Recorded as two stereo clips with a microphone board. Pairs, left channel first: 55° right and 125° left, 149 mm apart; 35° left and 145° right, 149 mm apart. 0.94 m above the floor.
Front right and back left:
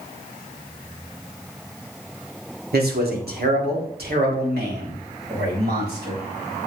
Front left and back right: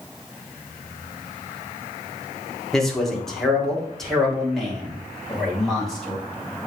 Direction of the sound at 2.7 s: 120° left.